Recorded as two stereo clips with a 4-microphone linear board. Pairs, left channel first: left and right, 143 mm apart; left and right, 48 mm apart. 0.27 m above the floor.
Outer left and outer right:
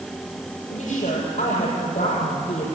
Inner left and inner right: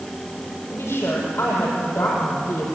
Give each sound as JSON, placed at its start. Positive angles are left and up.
{"t": 0.7, "sound": "a woman speaking", "side_deg": 55, "distance_m": 8.0}